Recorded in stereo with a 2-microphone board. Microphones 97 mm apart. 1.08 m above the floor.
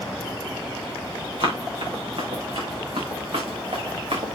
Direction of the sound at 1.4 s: 60° right (ahead or behind).